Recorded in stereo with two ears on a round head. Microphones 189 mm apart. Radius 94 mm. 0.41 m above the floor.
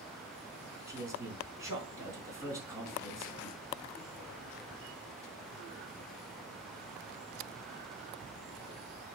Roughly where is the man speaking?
Centre.